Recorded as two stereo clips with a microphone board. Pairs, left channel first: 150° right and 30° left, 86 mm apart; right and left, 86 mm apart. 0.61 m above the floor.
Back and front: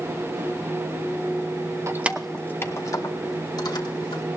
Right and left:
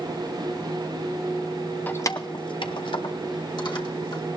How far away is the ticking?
I don't hear ticking.